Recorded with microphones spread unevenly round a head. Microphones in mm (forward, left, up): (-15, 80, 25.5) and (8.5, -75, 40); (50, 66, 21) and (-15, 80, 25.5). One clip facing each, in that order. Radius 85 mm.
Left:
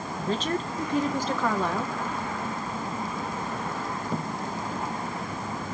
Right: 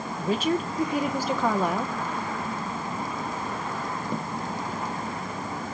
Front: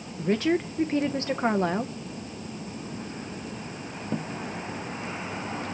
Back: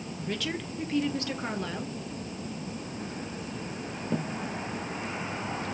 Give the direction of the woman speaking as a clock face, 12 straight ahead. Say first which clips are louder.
Right 3 dB, front 10 dB; 1 o'clock.